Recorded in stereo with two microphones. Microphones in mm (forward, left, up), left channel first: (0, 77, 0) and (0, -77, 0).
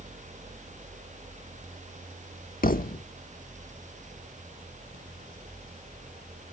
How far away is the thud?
About 1.0 m.